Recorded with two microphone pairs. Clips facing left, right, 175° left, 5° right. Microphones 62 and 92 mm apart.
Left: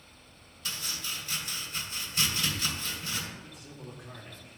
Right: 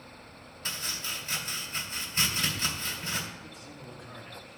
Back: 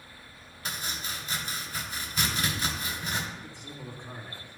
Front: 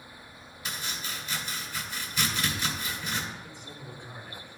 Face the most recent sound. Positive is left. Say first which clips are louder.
# right 1 dB, back 1 dB
turn(degrees=175)